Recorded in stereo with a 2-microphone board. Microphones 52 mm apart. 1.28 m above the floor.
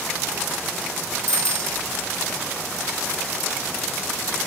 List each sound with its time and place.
1.3 s a bicycle bell: 70° right (ahead or behind)